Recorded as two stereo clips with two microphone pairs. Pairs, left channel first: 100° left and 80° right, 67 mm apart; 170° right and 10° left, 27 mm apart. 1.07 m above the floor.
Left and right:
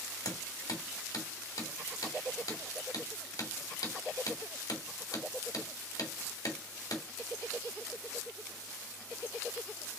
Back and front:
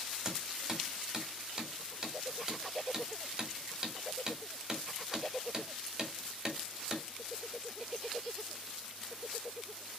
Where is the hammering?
80° left, 2.5 m.